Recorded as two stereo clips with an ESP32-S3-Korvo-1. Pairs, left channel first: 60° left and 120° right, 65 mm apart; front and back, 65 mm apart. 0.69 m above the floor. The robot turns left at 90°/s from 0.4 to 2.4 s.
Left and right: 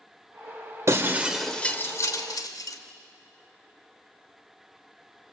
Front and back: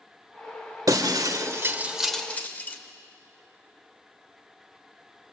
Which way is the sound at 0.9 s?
160° right.